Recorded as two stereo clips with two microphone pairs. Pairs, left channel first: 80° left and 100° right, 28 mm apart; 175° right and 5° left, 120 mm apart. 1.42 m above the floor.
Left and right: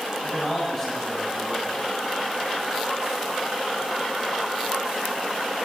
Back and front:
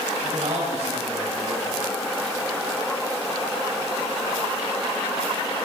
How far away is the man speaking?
About 4.5 m.